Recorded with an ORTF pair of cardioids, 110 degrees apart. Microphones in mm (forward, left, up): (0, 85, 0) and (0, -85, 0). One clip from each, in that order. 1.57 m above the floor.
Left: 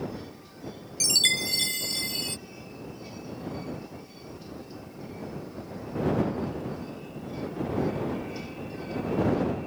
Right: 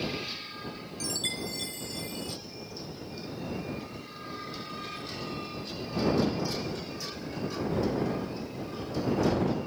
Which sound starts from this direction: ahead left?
A chime, at 1.0 s.